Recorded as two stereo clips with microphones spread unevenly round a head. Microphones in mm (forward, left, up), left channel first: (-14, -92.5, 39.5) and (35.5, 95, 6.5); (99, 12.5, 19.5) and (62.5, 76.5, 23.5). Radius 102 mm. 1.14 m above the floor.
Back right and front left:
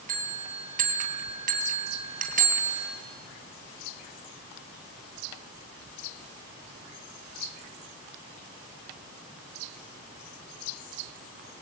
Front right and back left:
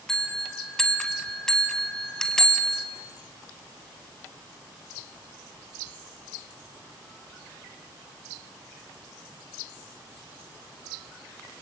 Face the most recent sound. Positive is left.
turn(degrees=25)